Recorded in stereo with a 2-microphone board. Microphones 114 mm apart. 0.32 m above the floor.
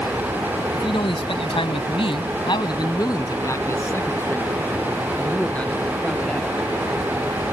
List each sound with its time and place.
0.7 s a man speaking: 50° left (ahead or behind); by 6.6 s 5° left (ahead or behind)